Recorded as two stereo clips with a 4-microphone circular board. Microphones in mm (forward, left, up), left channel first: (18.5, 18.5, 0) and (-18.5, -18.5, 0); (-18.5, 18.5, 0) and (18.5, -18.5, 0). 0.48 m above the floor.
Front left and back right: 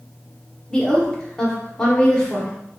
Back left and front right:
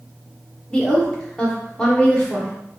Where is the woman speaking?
90° left, 1.0 m.